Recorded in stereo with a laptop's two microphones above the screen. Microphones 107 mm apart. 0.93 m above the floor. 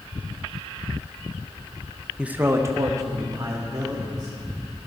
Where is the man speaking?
5° right (ahead or behind), 0.5 m; by 4.8 s 40° right (ahead or behind), 3.5 m.